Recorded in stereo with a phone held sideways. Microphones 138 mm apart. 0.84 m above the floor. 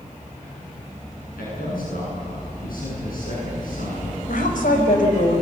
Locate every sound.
1.4 s a man speaking: 85° left, 9.5 m
4.3 s a woman speaking: 75° left (ahead or behind), 5 m